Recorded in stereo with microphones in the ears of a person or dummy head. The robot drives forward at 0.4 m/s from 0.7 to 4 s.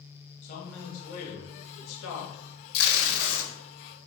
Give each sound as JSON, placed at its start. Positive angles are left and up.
{"t": 0.4, "sound": "a man speaking", "side_deg": 40, "distance_m": 1.6}
{"t": 2.7, "sound": "tape being pulled", "side_deg": 60, "distance_m": 1.1}